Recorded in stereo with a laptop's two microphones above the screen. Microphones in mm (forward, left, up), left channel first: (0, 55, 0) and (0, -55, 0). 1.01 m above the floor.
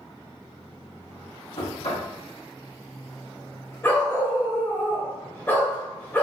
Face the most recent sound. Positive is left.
turn(degrees=20)  # may be behind; listen again after turning